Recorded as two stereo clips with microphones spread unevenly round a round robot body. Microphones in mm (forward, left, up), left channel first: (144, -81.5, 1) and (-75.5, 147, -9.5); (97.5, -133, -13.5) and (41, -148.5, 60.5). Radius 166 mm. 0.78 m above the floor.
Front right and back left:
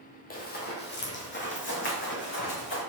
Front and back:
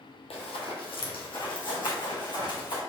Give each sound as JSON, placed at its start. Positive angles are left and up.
{"t": 0.3, "sound": "running footsteps", "azimuth_deg": 10, "distance_m": 1.3}